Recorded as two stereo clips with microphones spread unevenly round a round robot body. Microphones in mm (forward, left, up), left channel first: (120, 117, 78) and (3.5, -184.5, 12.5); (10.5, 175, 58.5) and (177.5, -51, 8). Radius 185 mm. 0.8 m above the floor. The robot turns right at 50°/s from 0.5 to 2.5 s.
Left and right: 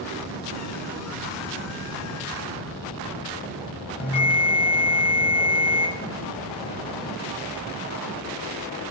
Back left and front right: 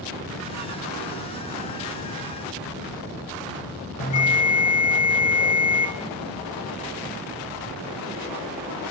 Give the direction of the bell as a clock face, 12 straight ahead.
8 o'clock.